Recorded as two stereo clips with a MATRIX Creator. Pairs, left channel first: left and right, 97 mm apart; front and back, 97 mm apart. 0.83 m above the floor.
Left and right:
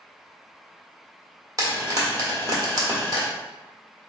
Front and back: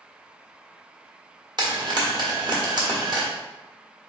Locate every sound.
1.6 s frying: 140° right, 1.6 m